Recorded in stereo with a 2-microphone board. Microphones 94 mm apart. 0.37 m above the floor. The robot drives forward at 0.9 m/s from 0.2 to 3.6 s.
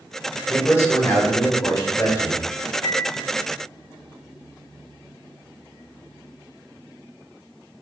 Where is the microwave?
35° left (ahead or behind), 1.6 m; by 3.1 s 30° left (ahead or behind), 1.9 m.